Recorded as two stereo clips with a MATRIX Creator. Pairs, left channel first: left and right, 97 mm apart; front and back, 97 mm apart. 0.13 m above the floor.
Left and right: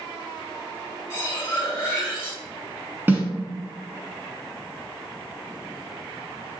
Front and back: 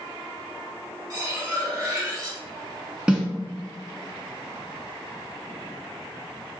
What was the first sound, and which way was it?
Cutlery clinking, 140° left.